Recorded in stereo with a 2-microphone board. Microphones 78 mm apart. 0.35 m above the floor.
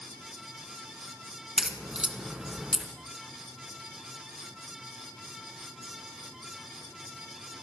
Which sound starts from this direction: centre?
A crack, at 1.6 s.